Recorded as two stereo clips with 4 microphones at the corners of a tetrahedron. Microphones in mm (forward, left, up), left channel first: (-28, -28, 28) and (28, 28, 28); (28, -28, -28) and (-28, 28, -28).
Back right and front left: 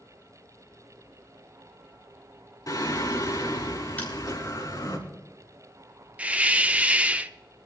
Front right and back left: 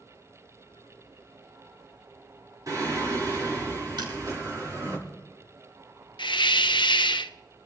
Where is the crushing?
155° left, 4 m.